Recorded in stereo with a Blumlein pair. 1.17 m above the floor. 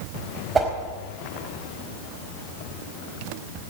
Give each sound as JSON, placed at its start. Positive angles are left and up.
{"t": 0.6, "sound": "a whoosh", "azimuth_deg": -15, "distance_m": 4.0}